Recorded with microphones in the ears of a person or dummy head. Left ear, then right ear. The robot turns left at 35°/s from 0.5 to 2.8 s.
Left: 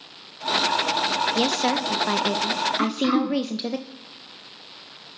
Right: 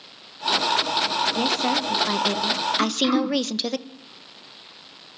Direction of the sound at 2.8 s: 15° right (ahead or behind).